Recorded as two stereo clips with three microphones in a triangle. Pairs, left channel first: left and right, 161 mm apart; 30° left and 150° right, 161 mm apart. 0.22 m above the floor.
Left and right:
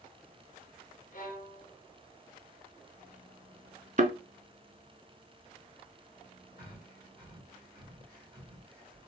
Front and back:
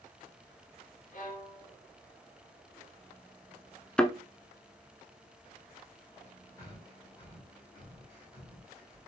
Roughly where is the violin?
Ahead left.